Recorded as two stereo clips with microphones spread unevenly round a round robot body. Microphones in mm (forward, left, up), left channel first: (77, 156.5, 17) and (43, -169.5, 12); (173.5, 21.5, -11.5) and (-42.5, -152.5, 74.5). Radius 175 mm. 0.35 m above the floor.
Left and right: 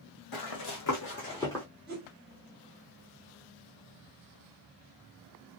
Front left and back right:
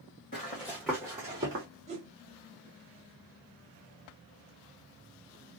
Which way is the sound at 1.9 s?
65° right.